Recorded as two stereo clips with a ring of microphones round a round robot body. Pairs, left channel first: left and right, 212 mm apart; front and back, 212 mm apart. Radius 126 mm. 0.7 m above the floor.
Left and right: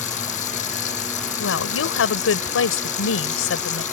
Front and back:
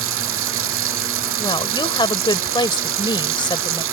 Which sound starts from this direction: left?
A woman speaking, at 1.4 s.